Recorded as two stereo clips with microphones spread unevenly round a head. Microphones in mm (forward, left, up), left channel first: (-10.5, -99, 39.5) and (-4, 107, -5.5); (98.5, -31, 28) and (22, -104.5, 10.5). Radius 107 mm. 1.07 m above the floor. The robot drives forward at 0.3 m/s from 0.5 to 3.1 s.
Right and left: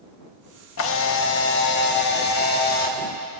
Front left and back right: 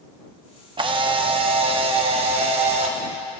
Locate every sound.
0.8 s a camera shutter: 115° right, 0.9 m; by 3.0 s 145° right, 1.3 m